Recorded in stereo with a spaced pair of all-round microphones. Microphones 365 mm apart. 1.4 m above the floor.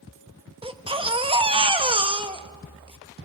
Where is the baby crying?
15° right (ahead or behind), 0.9 m.